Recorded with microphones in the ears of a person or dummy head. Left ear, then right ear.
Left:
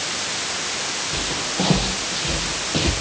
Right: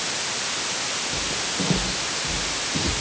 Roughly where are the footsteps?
Left.